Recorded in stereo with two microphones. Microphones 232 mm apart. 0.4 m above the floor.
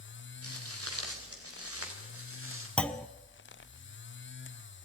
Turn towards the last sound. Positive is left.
turn(degrees=5)  # may be behind; listen again after turning